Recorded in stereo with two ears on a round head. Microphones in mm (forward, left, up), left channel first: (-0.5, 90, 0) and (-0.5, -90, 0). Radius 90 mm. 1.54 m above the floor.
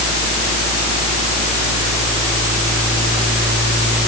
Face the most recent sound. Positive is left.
No sound to turn to.